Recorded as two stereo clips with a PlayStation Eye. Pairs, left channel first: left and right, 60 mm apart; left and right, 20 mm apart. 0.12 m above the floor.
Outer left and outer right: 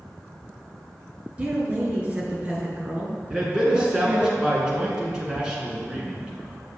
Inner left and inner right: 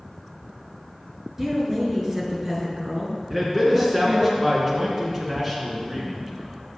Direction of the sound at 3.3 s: 15° right (ahead or behind).